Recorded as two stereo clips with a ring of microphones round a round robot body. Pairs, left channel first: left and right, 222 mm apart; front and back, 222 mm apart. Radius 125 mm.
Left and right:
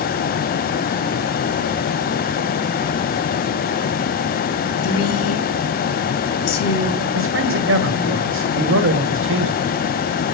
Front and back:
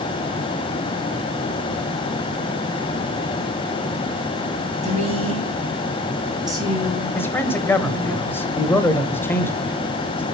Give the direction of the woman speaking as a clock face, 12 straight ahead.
8 o'clock.